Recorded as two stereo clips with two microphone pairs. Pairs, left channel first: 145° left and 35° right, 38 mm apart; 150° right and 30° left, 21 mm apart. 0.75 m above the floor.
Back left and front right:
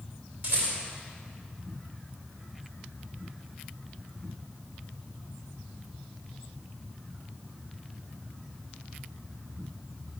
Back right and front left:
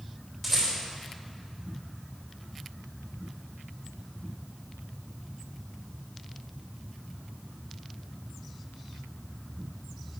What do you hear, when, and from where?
0.4 s a rattle: 80° right, 3 m